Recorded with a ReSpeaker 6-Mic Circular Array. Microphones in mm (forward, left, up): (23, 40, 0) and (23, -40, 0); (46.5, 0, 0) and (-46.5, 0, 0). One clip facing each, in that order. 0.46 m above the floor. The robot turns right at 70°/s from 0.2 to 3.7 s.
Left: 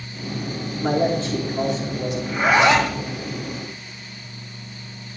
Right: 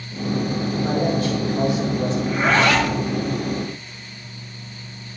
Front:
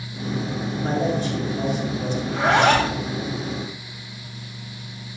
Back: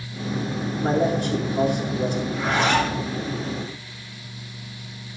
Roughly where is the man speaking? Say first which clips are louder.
Left 2 dB, back 2 dB; behind left.